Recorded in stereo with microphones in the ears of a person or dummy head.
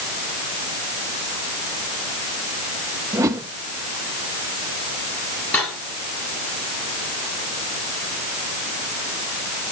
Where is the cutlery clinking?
10° left (ahead or behind), 7 m.